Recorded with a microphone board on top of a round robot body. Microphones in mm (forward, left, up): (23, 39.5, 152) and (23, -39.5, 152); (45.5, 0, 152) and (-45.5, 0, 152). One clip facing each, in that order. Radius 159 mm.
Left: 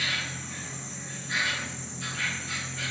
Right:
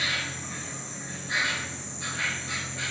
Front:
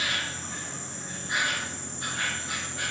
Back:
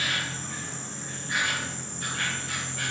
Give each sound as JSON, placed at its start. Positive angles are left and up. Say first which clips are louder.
{"t": 0.0, "sound": "an insect", "louder": "right 1 dB, back 1 dB", "azimuth_deg": -50, "distance_m": 1.1}